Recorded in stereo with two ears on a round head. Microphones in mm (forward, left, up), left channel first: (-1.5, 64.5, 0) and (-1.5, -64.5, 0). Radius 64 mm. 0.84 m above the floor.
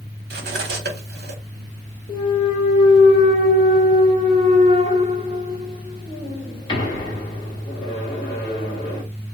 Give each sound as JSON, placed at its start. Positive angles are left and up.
{"t": 0.3, "sound": "cutlery clinking", "side_deg": -70, "distance_m": 1.3}
{"t": 2.1, "sound": "a clunk", "side_deg": 35, "distance_m": 1.7}